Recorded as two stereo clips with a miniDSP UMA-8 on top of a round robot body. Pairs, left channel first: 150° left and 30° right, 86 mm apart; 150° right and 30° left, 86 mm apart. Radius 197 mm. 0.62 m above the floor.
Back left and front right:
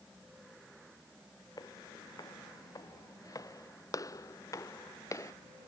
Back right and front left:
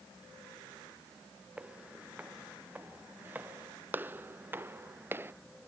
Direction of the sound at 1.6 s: 105° left.